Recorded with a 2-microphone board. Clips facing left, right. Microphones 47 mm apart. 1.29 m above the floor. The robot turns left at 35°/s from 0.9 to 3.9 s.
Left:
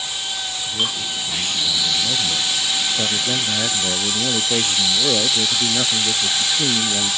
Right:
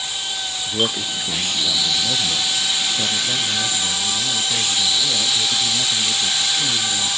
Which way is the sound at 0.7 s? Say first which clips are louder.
Right 3 dB; 130° right.